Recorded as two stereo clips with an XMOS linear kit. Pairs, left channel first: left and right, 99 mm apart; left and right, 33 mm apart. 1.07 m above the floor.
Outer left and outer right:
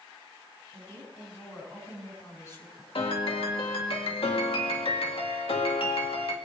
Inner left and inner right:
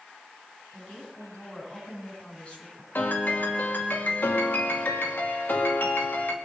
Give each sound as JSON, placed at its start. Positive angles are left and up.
{"t": 0.7, "sound": "a woman speaking", "side_deg": 35, "distance_m": 8.0}
{"t": 3.0, "sound": "a piano", "side_deg": 70, "distance_m": 2.0}